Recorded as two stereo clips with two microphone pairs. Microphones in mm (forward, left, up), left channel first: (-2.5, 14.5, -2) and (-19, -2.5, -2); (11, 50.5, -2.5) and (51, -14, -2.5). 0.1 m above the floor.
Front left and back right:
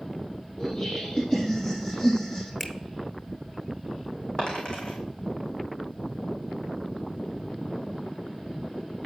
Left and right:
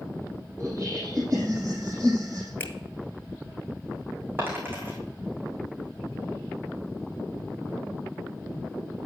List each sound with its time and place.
0.6 s laughter: 10° right, 3.5 m
2.6 s a finger snap: 95° left, 1.1 m
4.4 s a dropped coin: 5° left, 3.5 m